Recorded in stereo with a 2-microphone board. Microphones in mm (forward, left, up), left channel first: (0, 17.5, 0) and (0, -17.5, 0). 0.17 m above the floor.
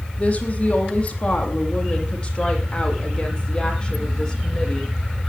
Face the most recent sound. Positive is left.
turn(degrees=10)  # may be behind; listen again after turning